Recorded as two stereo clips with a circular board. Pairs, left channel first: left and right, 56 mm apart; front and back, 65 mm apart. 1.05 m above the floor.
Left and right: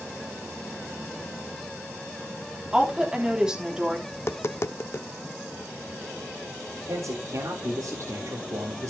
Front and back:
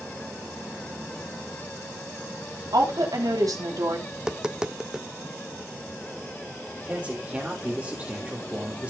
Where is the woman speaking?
170° right, 3 m.